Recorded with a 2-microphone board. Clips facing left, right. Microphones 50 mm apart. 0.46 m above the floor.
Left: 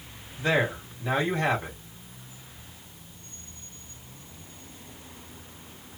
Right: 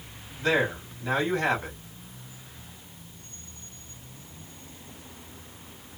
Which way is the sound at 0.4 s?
20° left (ahead or behind).